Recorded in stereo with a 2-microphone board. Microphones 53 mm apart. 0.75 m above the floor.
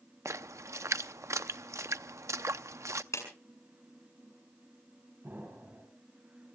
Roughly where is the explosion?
Right.